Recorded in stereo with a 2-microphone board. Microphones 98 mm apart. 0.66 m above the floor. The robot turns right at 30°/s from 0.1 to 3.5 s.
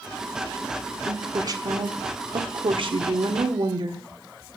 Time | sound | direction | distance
1.1 | a woman speaking | 145° right | 1.6 m